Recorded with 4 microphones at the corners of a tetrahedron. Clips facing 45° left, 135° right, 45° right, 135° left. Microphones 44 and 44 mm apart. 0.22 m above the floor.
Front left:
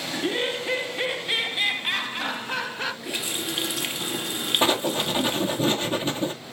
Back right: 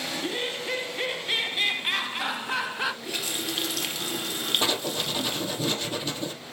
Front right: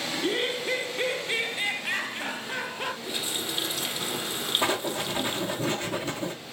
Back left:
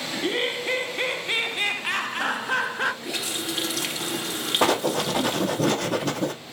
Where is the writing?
110° left, 1.8 m.